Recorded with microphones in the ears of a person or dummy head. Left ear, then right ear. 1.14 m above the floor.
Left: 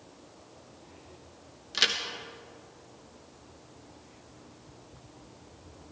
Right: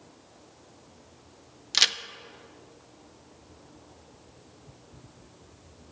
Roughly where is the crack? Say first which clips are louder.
Right 3 dB; right.